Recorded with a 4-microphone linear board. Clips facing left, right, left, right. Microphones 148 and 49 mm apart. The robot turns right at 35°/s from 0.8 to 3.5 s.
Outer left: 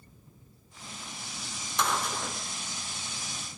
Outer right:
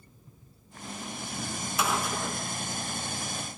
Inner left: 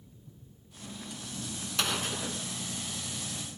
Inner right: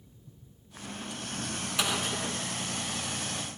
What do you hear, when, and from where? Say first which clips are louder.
1.8 s a gunshot: outer right 1 dB, inner right 1 dB; 10° right (ahead or behind), 0.5 m; by 2.4 s 5° left (ahead or behind), 0.5 m